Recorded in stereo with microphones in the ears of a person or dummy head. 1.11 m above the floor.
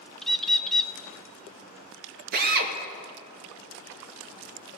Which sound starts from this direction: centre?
A bird, at 0.2 s.